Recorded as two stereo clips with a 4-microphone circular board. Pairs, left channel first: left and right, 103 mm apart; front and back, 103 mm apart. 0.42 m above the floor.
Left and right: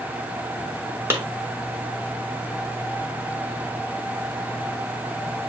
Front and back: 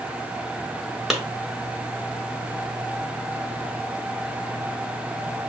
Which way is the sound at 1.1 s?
90° right.